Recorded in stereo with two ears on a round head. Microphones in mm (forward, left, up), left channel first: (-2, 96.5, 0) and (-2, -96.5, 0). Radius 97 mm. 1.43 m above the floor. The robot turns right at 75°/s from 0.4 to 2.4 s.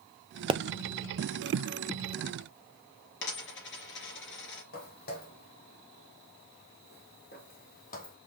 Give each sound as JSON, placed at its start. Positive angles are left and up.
{"t": 0.5, "sound": "a pop", "side_deg": -25, "distance_m": 0.6}
{"t": 3.2, "sound": "a dropped coin", "side_deg": 60, "distance_m": 3.0}
{"t": 4.7, "sound": "footsteps", "side_deg": 45, "distance_m": 3.0}